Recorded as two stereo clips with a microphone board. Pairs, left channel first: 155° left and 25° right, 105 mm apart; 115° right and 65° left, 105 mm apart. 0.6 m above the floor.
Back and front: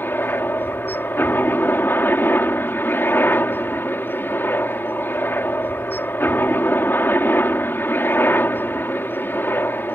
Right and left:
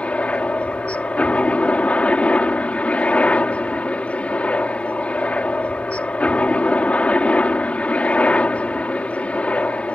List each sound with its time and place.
0.0 s a helicopter: 170° right